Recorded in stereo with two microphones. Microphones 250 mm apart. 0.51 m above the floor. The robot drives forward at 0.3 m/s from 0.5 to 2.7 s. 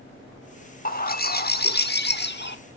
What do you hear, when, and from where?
0.8 s a bird: 35° left (ahead or behind), 1.3 m; by 2.6 s 45° left (ahead or behind), 1.1 m